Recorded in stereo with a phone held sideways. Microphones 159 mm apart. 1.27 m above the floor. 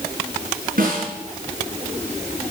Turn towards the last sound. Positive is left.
turn(degrees=-65)  # may be behind; listen again after turning